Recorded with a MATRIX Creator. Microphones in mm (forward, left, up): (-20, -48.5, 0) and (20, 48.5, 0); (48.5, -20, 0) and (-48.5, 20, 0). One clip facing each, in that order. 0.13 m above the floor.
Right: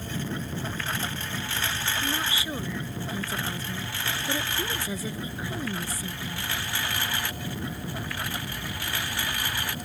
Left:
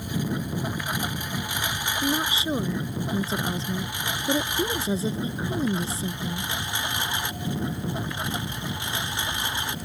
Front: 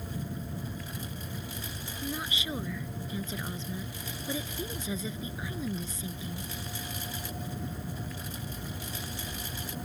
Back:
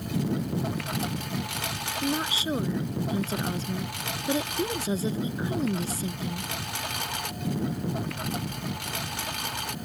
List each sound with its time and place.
0.0 s a lawn mower: 145° left; by 9.9 s 135° left
2.0 s a woman speaking: 120° left